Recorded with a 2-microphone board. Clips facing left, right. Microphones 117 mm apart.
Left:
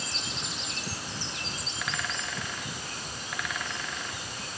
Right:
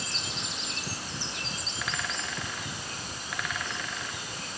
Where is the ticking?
I don't hear ticking.